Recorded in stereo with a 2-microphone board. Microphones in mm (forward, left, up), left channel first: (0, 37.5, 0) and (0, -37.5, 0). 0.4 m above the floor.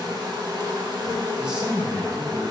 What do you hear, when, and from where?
0.0 s an insect: 75° right (ahead or behind), 0.7 m
1.4 s a man speaking: 10° right (ahead or behind), 0.8 m